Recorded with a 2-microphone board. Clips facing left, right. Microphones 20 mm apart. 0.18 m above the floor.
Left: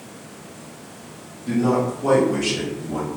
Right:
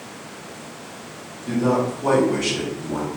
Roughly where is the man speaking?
Centre.